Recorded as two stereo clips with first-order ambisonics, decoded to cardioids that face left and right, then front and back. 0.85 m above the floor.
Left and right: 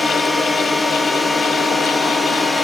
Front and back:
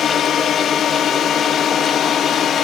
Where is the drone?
5° left.